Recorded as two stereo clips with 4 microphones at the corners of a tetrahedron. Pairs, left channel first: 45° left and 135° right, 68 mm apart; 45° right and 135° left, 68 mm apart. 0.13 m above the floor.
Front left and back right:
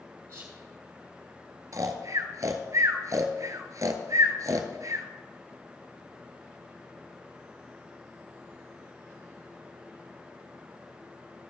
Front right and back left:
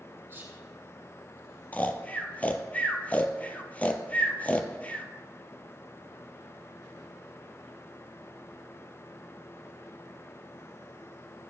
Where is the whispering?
175° left, 3 m.